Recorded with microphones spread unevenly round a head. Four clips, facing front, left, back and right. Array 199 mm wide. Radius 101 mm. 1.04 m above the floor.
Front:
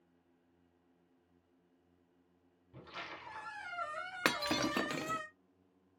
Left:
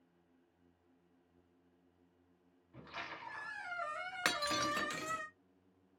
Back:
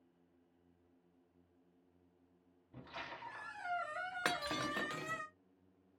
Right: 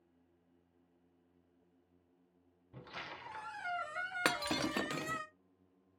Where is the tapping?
I don't hear tapping.